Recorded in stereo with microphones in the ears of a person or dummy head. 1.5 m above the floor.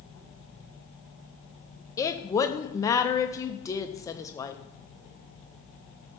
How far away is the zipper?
No zipper in this recording.